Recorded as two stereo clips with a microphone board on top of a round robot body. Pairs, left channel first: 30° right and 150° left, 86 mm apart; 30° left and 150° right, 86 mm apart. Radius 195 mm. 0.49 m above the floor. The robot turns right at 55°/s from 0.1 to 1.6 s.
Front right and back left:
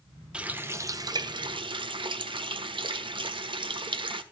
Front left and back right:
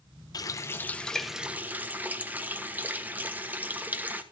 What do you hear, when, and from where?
0.3 s a running tap: 70° left, 1.2 m; by 4.2 s 140° left, 1.2 m